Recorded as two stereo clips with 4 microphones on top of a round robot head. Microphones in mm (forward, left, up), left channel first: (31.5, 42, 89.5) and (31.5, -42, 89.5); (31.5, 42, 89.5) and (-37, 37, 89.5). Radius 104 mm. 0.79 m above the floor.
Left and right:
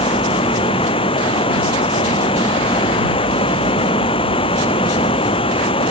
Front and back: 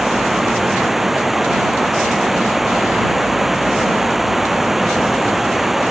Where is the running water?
95° left.